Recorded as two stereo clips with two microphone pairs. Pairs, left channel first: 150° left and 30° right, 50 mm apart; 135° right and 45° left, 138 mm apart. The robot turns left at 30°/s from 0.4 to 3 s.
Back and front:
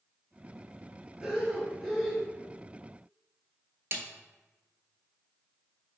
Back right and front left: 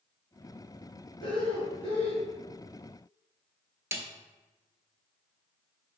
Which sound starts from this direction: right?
Breathing, at 1.2 s.